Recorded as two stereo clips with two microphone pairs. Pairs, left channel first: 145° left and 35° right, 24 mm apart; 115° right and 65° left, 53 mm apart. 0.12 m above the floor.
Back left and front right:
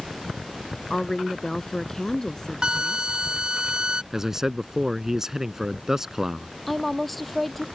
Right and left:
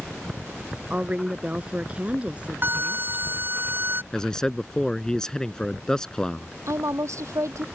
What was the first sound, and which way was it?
A woman speaking, 100° left.